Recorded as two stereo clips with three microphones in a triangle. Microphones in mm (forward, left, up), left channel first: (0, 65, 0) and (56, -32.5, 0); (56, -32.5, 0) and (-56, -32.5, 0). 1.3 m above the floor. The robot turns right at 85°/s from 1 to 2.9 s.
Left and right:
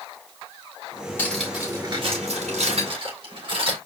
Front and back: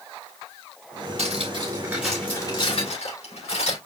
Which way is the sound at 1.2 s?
170° right.